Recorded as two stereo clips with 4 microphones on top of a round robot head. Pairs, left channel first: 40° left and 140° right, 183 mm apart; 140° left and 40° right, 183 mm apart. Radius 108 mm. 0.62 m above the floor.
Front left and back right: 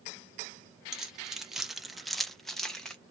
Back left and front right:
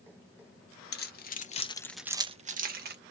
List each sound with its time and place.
0.9 s keys jangling: 135° left, 1.0 m; by 3.0 s 45° right, 0.9 m